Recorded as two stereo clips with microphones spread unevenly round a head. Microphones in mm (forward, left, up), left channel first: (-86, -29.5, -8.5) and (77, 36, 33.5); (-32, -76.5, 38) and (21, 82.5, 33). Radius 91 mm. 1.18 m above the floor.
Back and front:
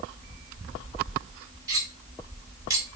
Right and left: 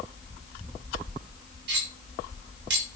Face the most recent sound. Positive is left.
turn(degrees=95)